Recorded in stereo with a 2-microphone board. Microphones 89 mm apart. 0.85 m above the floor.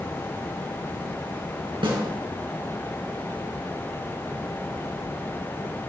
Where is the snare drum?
85° right, 3.5 m.